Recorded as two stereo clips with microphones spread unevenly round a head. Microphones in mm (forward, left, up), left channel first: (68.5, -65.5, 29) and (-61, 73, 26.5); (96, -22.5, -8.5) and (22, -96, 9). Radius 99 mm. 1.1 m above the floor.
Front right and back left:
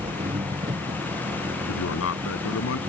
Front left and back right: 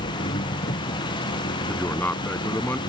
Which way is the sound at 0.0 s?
65° left.